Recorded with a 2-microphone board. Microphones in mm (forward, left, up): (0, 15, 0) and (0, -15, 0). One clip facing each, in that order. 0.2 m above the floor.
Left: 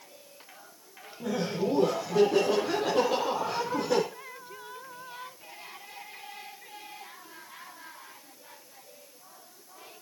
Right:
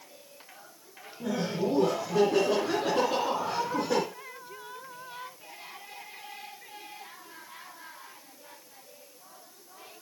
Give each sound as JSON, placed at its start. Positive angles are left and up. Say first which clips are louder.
{"t": 1.2, "sound": "laughter", "louder": "even", "side_deg": 0, "distance_m": 2.5}